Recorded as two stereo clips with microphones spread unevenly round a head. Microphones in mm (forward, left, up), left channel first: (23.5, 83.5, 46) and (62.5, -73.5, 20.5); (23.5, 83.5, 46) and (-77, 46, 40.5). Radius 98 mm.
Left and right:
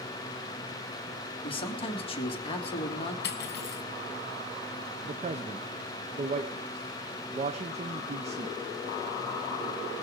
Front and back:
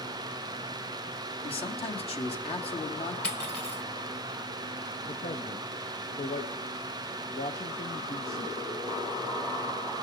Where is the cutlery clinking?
100° left, 1.5 m.